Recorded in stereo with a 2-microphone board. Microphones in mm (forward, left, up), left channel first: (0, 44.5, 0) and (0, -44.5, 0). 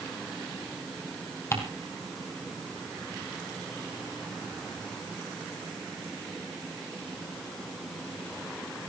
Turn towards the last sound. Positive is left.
turn(degrees=30)  # may be behind; listen again after turning